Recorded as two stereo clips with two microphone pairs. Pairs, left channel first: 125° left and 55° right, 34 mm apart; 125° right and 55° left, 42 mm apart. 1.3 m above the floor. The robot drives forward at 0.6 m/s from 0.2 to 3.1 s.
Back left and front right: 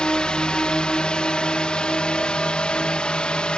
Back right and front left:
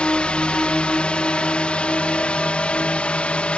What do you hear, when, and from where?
0.0 s a drone: 175° left; by 3.6 s straight behind